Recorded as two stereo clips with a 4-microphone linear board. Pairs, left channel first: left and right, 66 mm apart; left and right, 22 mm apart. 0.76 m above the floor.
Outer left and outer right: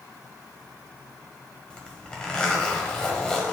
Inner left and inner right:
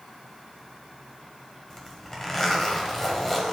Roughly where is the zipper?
Centre.